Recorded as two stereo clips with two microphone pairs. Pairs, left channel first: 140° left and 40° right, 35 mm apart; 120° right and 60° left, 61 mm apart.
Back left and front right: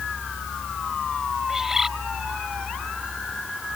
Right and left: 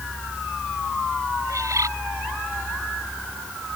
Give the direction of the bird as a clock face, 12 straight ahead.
11 o'clock.